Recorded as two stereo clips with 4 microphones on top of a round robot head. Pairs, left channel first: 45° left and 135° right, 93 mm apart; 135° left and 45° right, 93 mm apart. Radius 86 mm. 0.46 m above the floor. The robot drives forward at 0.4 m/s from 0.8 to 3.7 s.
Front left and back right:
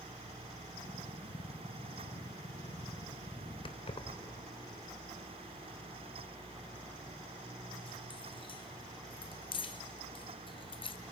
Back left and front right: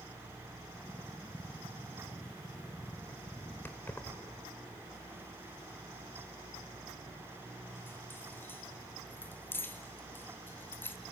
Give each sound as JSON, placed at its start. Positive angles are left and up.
{"t": 3.6, "sound": "keys jangling", "azimuth_deg": 65, "distance_m": 1.1}